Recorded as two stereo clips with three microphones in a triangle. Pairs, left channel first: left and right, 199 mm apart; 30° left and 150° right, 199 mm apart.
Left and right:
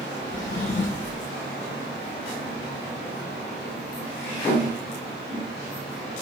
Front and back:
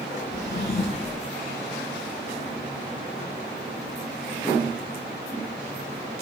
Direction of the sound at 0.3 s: 65° left.